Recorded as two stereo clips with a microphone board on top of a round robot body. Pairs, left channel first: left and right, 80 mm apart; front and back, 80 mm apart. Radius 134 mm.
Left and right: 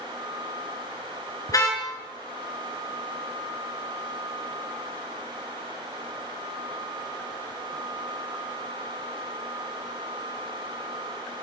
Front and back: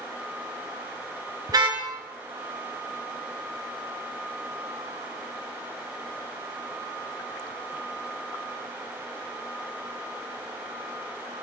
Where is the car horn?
140° left, 6 m.